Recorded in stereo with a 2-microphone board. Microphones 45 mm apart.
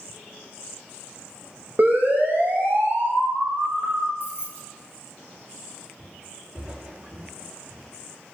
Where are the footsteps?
25° right (ahead or behind), 7.5 m; by 7.9 s 15° right (ahead or behind), 7 m.